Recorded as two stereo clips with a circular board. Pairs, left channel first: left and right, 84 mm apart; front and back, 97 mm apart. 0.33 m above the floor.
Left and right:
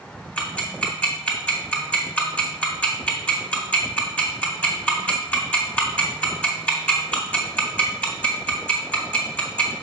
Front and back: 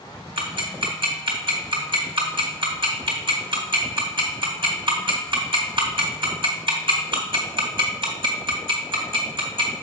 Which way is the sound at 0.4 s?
160° left.